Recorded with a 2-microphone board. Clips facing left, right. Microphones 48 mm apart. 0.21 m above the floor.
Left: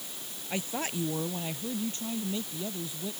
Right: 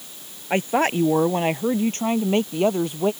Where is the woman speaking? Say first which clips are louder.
Right 13 dB; 50° right (ahead or behind); by 3.1 s 70° right (ahead or behind).